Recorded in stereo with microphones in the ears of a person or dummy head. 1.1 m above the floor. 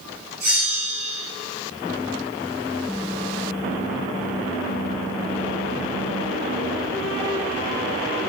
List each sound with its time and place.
0.4 s a bell: 55° right (ahead or behind), 3.5 m